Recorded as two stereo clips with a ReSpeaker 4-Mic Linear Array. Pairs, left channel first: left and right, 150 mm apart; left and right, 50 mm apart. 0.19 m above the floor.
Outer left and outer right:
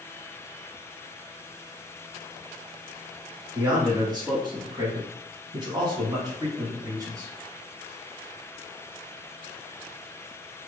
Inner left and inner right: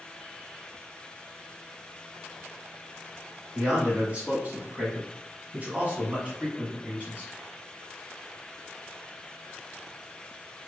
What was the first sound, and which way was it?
A man speaking, 25° right (ahead or behind).